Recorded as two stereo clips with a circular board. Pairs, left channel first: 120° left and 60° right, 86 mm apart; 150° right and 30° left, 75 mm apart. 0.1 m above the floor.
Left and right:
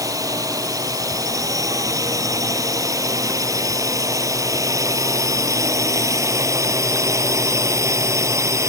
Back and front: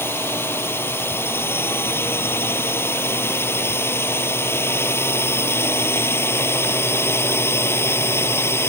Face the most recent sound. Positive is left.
turn(degrees=-105)